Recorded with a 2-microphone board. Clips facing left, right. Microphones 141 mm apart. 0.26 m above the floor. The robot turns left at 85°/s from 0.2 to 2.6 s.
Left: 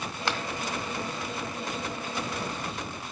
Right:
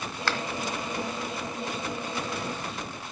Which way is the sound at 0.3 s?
20° left (ahead or behind).